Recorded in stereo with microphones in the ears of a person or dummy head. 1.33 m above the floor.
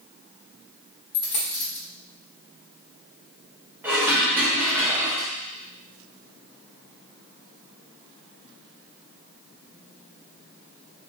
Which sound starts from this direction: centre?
Dishes clattering, at 3.8 s.